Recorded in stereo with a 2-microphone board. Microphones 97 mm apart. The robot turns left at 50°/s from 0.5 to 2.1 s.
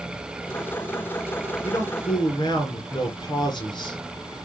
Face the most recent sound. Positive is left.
turn(degrees=50)  # may be behind; listen again after turning